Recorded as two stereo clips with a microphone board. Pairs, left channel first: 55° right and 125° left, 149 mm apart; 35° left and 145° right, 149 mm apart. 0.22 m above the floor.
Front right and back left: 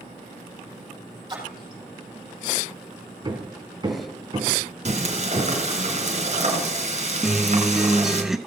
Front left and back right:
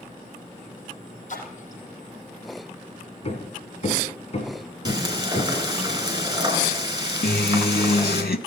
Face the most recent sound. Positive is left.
turn(degrees=35)